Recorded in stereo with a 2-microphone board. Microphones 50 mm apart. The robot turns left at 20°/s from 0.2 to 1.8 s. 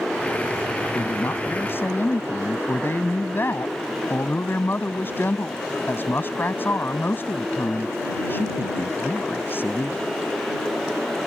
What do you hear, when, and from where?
0.9 s a woman speaking: 60° left (ahead or behind); by 10.1 s 40° left (ahead or behind)